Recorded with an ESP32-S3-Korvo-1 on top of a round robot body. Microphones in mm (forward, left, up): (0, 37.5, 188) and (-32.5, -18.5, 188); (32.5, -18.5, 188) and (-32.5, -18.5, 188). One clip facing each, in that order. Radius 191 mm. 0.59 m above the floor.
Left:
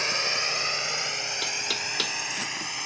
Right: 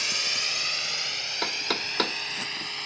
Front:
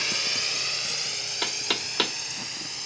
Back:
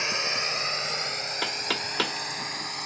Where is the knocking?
100° right.